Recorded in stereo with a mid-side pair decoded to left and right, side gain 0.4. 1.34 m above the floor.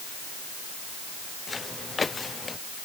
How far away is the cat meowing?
I don't hear a cat meowing.